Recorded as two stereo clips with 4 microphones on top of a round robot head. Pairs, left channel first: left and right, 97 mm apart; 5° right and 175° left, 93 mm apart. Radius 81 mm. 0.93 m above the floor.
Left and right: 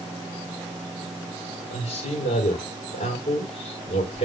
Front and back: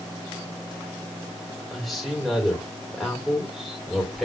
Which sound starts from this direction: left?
A man speaking, at 1.7 s.